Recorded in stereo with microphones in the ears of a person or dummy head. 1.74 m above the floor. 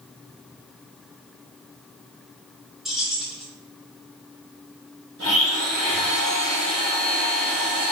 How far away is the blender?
About 2.0 m.